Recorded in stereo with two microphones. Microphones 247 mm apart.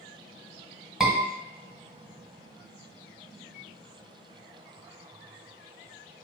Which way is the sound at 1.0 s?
Centre (ahead or behind).